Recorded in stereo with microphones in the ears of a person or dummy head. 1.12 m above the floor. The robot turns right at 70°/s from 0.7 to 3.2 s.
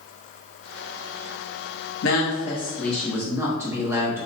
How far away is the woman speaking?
About 0.8 m.